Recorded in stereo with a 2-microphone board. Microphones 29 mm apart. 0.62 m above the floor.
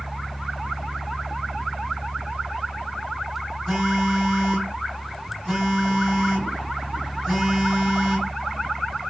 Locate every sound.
3.7 s a phone buzzing: 10° right (ahead or behind), 1.6 m